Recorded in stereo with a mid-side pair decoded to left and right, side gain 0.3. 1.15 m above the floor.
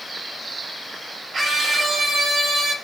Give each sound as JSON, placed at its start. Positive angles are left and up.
{"t": 1.3, "sound": "a scream", "azimuth_deg": -60, "distance_m": 7.5}